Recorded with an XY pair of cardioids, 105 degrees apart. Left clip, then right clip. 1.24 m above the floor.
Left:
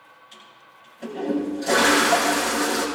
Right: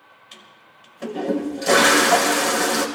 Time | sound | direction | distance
0.3 | a toilet flushing | 65° right | 4.5 m